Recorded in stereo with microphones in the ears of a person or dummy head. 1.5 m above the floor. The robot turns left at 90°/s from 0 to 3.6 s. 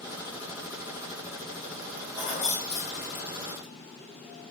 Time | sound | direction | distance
2.1 | keys jangling | 5° right (ahead or behind) | 0.6 m